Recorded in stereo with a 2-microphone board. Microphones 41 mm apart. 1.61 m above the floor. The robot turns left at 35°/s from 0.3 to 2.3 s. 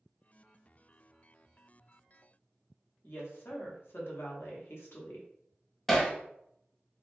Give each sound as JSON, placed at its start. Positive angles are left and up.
{"t": 3.0, "sound": "a woman speaking", "side_deg": 70, "distance_m": 0.9}
{"t": 5.9, "sound": "hammering", "side_deg": 5, "distance_m": 0.7}